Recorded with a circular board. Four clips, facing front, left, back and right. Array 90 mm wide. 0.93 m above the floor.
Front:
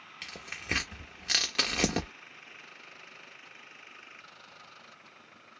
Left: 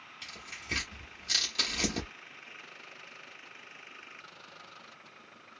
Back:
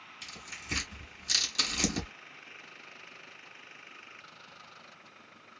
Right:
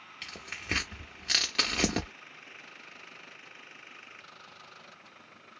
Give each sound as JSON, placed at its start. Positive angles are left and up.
{"t": 0.2, "sound": "tearing paper", "azimuth_deg": -35, "distance_m": 1.0}